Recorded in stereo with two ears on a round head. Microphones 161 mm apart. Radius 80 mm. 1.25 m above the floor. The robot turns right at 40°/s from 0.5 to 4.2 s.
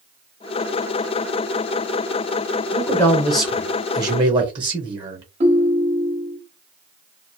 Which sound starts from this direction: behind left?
A man speaking, at 2.7 s.